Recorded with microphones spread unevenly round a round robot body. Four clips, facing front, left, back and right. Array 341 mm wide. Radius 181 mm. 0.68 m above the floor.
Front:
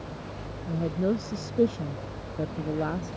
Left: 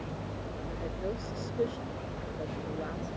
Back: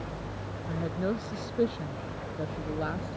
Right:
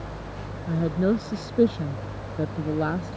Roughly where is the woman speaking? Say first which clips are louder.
Right 14 dB, front 4 dB; right.